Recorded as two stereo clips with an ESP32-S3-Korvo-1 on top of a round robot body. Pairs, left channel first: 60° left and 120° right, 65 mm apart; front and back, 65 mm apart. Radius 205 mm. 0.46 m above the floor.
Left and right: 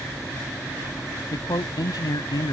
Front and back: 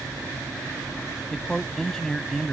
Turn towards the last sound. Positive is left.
turn(degrees=85)